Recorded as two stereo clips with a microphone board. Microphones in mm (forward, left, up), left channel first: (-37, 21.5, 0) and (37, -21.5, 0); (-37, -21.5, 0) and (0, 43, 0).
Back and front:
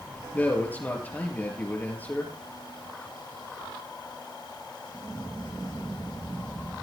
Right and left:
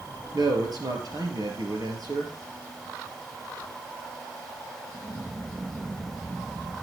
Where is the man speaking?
85° left, 4 m.